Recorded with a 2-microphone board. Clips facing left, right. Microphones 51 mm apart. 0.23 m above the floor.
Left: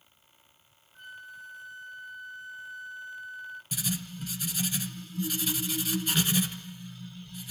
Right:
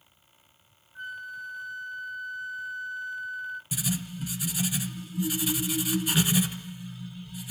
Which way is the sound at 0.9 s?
15° right (ahead or behind).